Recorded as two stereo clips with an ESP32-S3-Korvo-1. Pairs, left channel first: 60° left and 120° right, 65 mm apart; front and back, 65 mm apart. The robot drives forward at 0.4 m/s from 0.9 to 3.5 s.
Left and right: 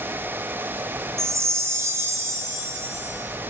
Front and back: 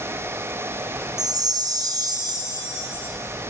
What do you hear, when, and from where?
1.2 s a chime: 165° right, 0.5 m; by 3.1 s 175° right, 1.3 m